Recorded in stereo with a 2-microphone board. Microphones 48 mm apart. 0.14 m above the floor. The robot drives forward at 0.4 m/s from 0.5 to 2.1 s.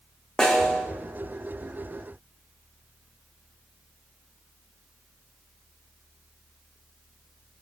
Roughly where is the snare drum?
Centre.